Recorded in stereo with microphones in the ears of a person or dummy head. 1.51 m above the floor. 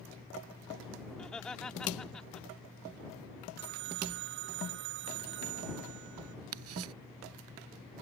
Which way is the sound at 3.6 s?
55° right (ahead or behind).